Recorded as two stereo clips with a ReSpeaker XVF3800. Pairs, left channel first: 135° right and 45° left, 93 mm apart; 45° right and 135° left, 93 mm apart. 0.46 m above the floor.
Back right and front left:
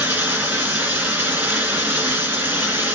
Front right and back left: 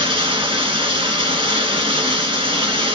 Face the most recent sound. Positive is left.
turn(degrees=110)